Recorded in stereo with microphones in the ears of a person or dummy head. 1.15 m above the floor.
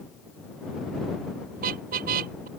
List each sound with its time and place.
1.6 s a car horn: 50° right (ahead or behind)